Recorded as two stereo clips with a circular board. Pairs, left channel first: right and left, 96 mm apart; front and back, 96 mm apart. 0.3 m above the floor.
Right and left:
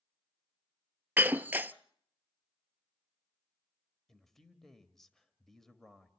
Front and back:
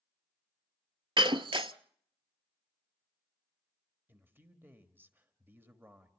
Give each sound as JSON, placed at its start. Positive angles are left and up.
{"t": 1.2, "sound": "breaking glass", "azimuth_deg": 160, "distance_m": 0.5}
{"t": 4.1, "sound": "a man speaking", "azimuth_deg": -170, "distance_m": 1.3}